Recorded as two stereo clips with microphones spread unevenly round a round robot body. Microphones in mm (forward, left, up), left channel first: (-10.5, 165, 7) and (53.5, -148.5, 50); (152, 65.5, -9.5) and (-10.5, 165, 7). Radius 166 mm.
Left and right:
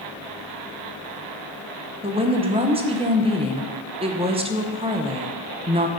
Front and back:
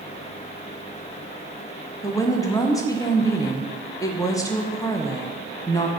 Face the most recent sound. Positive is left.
turn(degrees=-15)